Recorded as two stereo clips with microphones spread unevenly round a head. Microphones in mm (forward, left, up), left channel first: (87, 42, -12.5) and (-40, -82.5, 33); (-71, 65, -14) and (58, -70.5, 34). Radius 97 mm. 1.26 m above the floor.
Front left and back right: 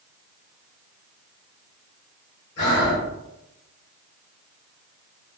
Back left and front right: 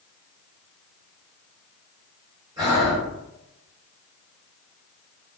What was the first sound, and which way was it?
Breathing, 30° left.